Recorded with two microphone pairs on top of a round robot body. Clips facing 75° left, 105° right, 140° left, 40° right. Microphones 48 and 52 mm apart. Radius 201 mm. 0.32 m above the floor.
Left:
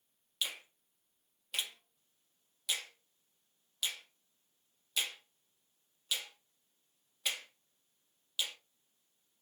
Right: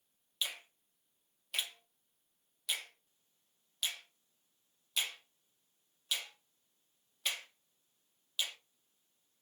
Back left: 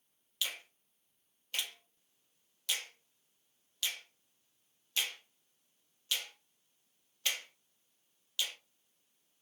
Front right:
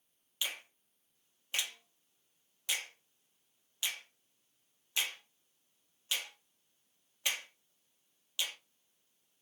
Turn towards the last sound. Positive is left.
turn(degrees=-20)